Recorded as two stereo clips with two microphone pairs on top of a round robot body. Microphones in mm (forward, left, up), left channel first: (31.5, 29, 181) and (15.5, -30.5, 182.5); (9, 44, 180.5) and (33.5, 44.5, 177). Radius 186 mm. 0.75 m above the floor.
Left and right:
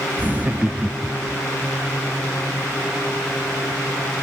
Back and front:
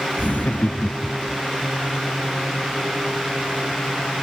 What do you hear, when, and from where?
0.2 s laughter: 165° right; by 1.4 s straight behind